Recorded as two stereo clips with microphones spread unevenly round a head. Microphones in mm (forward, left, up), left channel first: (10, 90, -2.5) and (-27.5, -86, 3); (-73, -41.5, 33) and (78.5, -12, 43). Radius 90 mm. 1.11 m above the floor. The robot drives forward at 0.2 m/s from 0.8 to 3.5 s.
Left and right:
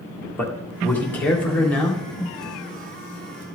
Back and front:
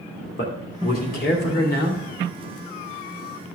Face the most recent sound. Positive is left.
turn(degrees=165)